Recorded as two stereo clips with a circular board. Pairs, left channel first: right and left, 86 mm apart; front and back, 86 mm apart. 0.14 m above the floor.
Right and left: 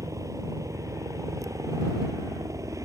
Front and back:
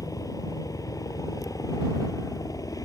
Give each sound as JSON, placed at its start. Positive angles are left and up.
{"t": 0.0, "sound": "a helicopter", "azimuth_deg": 40}